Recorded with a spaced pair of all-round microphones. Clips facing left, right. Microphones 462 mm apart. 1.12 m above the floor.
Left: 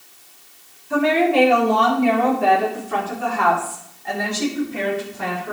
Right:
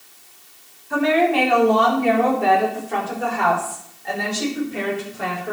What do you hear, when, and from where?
0.9 s a woman speaking: 45° left (ahead or behind), 3.5 m; by 5.5 s 15° left (ahead or behind), 5.5 m